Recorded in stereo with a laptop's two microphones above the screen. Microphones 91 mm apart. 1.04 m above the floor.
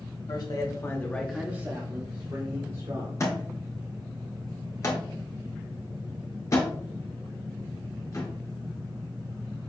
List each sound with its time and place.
0.3 s a man speaking: 50° left (ahead or behind), 1.1 m; by 3.2 s 70° right (ahead or behind), 1.6 m
3.2 s a thud: 35° left (ahead or behind), 1.2 m